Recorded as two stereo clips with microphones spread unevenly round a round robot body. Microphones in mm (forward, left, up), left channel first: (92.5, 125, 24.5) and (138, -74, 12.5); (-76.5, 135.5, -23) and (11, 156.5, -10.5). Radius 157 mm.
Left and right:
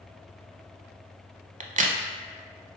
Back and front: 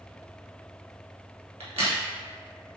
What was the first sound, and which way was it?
A crack, 20° right.